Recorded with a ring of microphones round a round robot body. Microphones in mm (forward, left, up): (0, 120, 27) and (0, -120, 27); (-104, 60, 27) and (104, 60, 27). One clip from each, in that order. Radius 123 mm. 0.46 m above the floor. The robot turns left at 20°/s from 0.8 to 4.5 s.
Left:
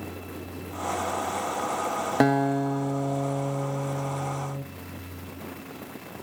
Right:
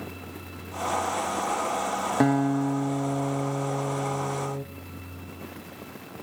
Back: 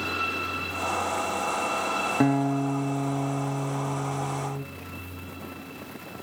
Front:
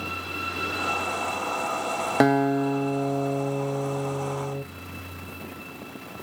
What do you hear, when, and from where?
2.2 s a guitar: 15° left, 0.8 m; by 4.6 s 30° right, 0.8 m